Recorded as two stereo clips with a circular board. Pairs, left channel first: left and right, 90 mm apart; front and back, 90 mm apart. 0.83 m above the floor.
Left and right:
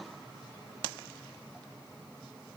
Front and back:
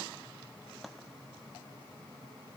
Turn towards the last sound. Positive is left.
No sound to turn to.